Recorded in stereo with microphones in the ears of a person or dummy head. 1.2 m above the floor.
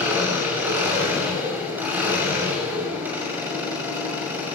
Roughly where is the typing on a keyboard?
No typing on a keyboard in this recording.